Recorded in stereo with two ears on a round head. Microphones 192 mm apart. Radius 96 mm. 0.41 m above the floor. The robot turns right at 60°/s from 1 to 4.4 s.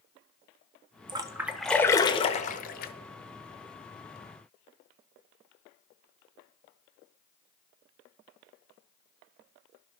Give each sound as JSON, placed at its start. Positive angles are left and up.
{"t": 1.1, "sound": "a splash", "side_deg": -20, "distance_m": 0.6}